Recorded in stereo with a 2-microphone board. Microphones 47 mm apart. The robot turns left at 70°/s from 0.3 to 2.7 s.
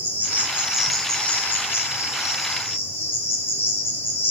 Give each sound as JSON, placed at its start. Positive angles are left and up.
{"t": 0.0, "sound": "an insect", "azimuth_deg": -135, "distance_m": 1.3}